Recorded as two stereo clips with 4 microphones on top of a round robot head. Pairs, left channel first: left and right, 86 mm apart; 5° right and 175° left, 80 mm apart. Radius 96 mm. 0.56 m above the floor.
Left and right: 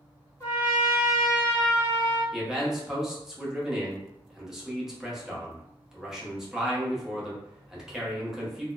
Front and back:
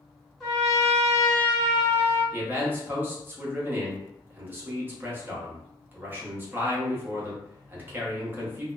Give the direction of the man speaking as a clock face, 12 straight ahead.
6 o'clock.